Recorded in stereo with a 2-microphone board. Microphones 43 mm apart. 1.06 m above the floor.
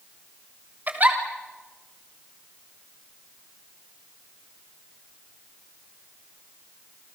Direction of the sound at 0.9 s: 40° right (ahead or behind).